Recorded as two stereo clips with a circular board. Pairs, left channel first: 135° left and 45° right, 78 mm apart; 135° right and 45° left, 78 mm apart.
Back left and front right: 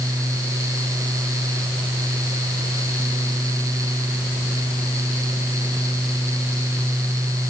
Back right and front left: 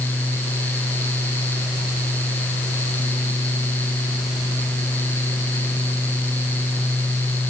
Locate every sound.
Only background noise.